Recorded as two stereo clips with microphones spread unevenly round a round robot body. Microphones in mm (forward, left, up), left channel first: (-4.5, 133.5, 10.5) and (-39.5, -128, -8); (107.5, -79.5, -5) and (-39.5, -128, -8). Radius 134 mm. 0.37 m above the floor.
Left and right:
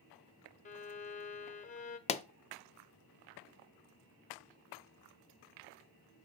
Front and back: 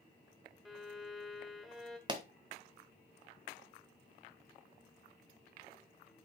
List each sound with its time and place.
0.7 s a violin: 110° left, 0.8 m
2.1 s a pop: 145° left, 0.5 m